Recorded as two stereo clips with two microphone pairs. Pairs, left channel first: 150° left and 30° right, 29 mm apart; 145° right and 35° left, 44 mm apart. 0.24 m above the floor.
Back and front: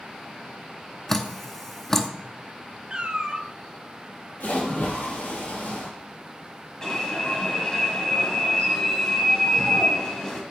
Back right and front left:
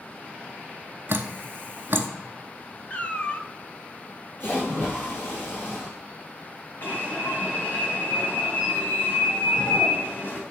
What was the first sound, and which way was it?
Dripping, 70° left.